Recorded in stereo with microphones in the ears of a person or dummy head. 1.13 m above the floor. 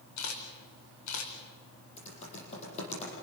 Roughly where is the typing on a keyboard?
Left.